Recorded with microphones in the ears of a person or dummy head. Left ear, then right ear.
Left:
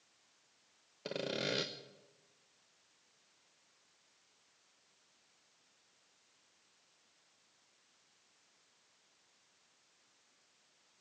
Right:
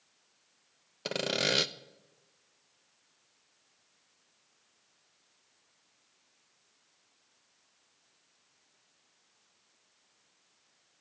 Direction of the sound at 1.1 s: 35° right (ahead or behind).